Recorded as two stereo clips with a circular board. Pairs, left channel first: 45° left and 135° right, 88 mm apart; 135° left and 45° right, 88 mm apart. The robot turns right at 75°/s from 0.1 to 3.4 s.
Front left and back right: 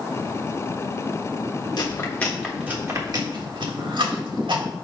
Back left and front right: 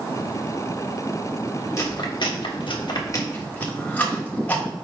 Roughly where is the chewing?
Left.